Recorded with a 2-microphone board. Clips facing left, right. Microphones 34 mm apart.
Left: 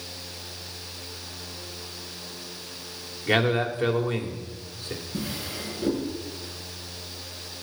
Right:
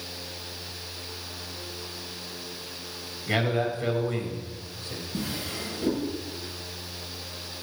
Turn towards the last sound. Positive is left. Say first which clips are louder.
# right 1 dB
turn(degrees=10)  # may be behind; listen again after turning